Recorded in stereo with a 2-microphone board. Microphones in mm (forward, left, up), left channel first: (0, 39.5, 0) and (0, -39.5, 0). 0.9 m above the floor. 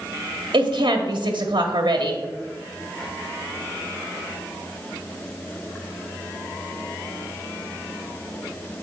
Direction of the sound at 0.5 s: 75° right (ahead or behind).